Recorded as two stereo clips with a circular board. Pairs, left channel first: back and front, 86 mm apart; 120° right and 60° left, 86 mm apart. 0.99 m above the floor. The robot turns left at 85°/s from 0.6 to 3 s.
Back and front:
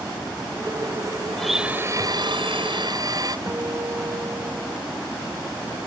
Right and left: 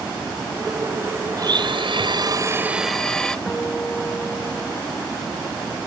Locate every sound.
1.4 s a blender: 100° left; by 3.4 s 40° right
3.5 s a guitar: 50° right